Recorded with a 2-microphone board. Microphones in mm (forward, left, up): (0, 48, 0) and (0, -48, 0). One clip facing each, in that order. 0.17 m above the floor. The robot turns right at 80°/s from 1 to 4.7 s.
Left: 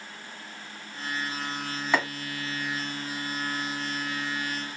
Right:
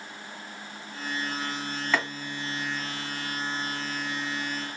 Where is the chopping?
15° left (ahead or behind), 1.6 m; by 2.1 s 20° left (ahead or behind), 1.6 m.